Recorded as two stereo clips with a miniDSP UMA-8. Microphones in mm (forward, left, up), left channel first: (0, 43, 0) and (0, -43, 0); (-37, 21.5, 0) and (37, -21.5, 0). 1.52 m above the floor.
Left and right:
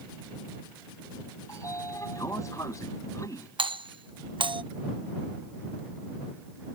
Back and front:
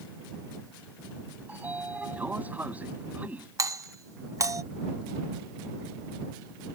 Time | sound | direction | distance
1.5 | a sliding door | 40° left | ?
3.6 | a doorbell | 80° right | ?